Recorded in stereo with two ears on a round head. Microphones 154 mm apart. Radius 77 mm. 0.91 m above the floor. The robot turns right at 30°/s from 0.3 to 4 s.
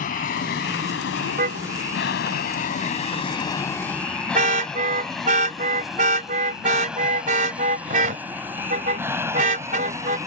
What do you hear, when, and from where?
0.0 s an aircraft: 50° left (ahead or behind); by 10.3 s 20° right (ahead or behind)
1.4 s a car horn: 55° right (ahead or behind); by 10.2 s 45° right (ahead or behind)